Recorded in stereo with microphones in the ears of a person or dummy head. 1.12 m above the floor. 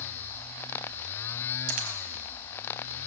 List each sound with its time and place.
1.7 s a dropped coin: 55° right (ahead or behind), 3.5 m